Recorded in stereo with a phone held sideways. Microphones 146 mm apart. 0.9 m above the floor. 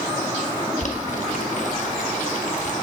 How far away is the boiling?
About 1.1 m.